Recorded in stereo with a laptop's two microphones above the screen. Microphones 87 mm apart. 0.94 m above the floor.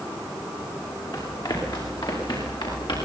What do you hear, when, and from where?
1.1 s running footsteps: 55° left (ahead or behind), 8.5 m; by 3.0 s 60° left (ahead or behind), 10 m